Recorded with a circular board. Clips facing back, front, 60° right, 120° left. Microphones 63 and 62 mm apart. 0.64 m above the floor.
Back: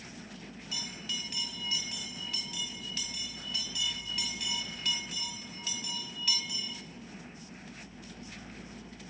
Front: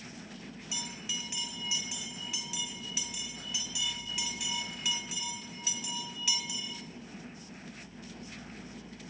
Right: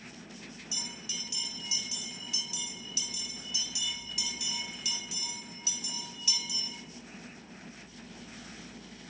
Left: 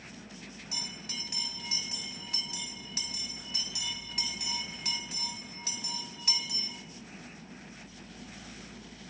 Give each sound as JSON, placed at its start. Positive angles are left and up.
{"t": 0.7, "sound": "a bell", "azimuth_deg": 80, "distance_m": 2.5}